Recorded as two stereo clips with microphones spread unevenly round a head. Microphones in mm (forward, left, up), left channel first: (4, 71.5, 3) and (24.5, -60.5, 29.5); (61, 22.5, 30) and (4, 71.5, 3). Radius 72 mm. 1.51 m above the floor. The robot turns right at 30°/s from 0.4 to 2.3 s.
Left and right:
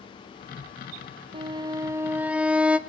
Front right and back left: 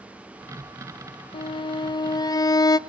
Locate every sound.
1.3 s a violin: 25° right, 0.7 m; by 2.8 s 5° left, 0.7 m